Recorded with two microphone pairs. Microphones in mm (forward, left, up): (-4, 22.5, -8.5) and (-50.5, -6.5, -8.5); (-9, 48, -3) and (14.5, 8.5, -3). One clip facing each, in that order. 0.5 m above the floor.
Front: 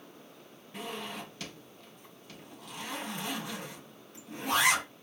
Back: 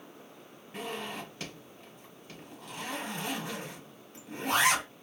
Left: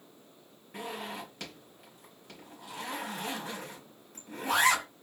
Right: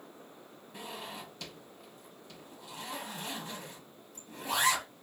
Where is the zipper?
145° left, 4 m.